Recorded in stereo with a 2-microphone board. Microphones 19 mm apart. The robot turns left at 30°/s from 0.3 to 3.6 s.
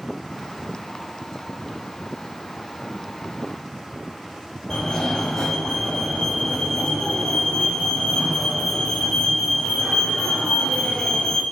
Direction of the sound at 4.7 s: 30° left (ahead or behind).